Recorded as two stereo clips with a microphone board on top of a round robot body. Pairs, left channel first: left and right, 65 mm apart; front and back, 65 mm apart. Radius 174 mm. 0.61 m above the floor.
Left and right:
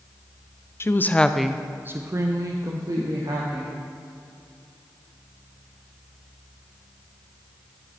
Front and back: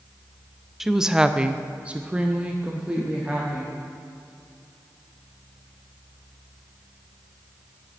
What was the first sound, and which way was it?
A woman speaking, 100° left.